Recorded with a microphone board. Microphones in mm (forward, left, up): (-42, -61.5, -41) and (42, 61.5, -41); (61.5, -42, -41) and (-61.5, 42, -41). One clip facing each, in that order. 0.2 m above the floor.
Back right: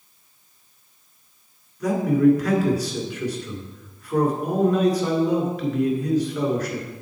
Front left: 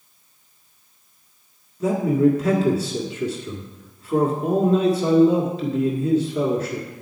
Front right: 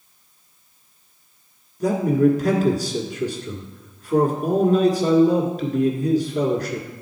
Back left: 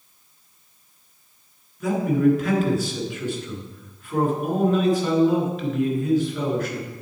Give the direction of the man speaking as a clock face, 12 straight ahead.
12 o'clock.